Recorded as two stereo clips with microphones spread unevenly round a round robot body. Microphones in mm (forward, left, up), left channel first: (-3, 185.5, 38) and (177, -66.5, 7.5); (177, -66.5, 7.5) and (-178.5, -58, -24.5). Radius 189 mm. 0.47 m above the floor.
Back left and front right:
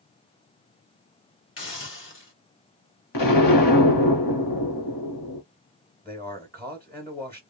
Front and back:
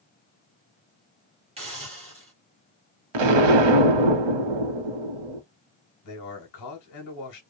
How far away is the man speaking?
About 1.4 m.